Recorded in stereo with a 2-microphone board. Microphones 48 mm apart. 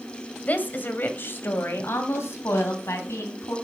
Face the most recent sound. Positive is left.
turn(degrees=75)  # may be behind; listen again after turning